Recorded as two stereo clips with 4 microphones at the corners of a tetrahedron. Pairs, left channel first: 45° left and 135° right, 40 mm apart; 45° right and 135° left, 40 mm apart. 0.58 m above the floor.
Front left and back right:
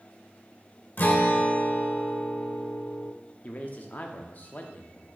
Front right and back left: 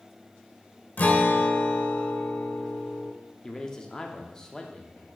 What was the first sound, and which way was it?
A guitar, straight ahead.